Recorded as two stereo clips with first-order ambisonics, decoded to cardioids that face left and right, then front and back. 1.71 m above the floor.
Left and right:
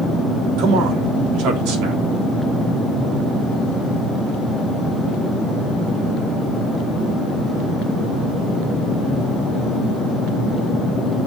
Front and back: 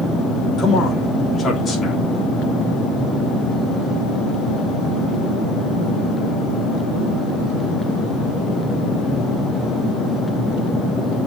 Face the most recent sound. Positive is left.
turn(degrees=-65)